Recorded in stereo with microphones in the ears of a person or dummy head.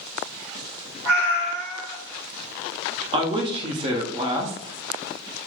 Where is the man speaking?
30° right (ahead or behind), 0.7 m.